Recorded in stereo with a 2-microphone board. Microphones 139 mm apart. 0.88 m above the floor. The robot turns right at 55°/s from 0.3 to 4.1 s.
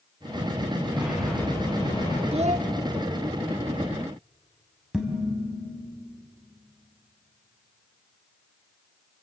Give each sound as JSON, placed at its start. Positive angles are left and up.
{"t": 0.9, "sound": "a sliding door", "azimuth_deg": -15, "distance_m": 8.0}
{"t": 2.3, "sound": "a child speaking", "side_deg": -50, "distance_m": 0.8}
{"t": 4.9, "sound": "dishes clattering", "side_deg": -5, "distance_m": 3.5}